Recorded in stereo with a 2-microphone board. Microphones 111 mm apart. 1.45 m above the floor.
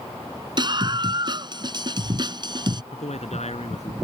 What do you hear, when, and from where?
0.6 s a scream: 40° right (ahead or behind)
2.9 s a man speaking: 80° left